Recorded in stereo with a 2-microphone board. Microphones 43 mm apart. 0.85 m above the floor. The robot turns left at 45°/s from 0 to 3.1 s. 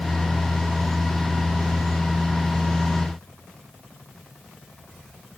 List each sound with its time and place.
Only background noise.